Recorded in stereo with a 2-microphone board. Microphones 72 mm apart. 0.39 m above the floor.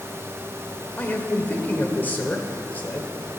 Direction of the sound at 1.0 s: 25° left (ahead or behind).